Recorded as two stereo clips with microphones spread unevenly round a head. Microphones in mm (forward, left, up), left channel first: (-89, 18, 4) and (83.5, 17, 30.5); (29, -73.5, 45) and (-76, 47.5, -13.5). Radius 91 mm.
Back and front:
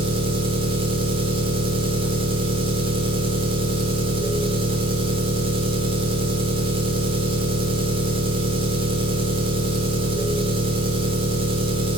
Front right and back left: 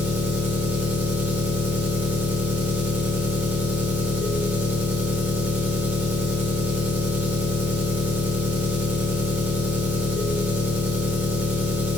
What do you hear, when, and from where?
0.0 s an engine running: 30° left, 1.1 m